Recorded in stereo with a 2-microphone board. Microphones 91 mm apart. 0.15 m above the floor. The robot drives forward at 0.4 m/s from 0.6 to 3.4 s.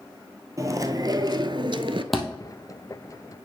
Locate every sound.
0.6 s chewing: 35° right (ahead or behind), 0.8 m; by 2.0 s 70° right (ahead or behind), 0.5 m
2.1 s a thud: centre (ahead or behind), 1.6 m